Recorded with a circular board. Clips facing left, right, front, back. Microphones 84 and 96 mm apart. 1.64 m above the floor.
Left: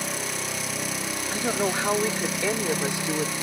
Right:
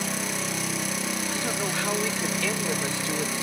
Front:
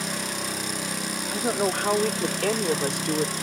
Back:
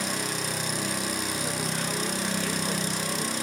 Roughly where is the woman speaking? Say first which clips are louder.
Left 8 dB, front 6 dB; ahead left.